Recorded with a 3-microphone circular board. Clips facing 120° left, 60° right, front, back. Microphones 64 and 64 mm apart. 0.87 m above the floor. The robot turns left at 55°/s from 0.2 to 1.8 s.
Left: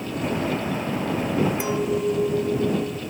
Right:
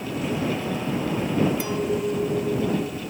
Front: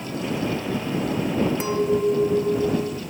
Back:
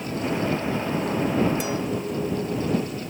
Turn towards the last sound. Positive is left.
turn(degrees=40)